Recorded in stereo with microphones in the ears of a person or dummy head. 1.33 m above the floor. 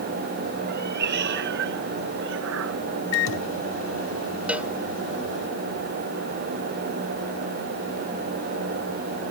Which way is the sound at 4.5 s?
5° right (ahead or behind).